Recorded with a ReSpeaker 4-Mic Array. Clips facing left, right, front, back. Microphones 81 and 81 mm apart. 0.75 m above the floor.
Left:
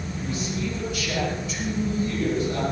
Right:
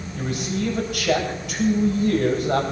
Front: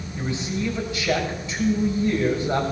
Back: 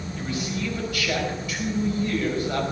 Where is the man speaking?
65° right, 5 m.